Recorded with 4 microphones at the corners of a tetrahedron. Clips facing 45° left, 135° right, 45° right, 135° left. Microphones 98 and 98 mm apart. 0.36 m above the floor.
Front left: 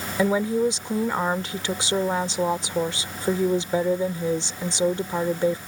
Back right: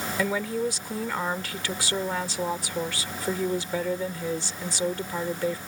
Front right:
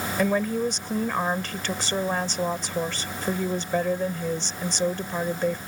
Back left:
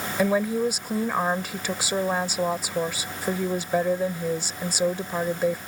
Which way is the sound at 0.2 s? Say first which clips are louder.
Front left 7 dB, back left 2 dB; 70° left.